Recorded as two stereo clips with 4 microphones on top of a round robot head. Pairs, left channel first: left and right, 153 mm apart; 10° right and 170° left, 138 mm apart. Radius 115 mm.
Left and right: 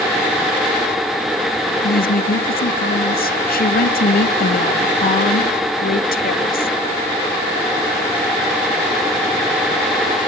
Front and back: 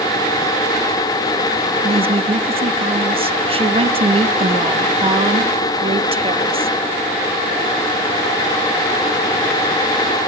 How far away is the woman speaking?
About 1.7 m.